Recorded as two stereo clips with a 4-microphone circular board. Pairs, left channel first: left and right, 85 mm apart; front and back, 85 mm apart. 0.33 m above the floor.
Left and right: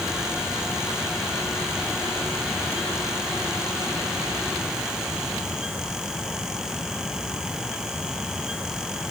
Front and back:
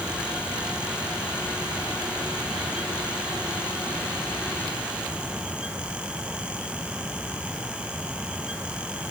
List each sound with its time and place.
Only background noise.